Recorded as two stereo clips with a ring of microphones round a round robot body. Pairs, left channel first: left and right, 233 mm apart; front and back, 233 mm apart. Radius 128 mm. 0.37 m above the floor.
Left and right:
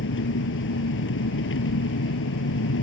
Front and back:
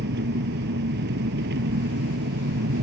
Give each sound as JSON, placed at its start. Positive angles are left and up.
{"t": 0.0, "sound": "an engine running", "azimuth_deg": 125}